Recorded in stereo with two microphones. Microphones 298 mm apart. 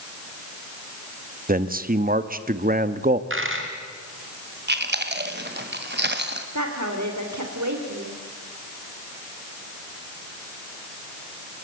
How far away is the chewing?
About 1.7 m.